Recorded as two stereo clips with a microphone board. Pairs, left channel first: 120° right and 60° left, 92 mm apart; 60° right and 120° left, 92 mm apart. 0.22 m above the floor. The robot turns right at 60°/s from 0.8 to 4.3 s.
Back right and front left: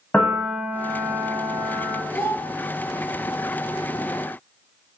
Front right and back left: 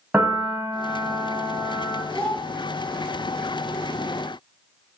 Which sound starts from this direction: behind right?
A child speaking, at 2.1 s.